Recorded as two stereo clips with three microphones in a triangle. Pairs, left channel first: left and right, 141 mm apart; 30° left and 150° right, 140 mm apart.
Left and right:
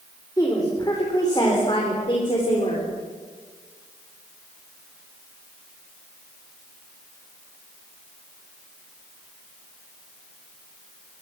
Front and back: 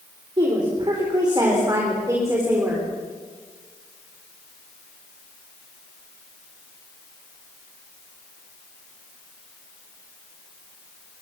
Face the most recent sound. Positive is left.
turn(degrees=135)